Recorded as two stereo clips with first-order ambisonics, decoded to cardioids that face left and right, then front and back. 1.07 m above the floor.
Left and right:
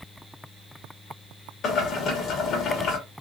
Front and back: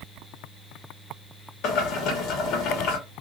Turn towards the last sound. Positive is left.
turn(degrees=35)